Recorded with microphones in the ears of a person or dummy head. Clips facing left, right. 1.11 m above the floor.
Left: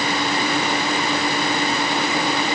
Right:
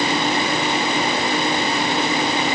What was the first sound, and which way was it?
Only background noise.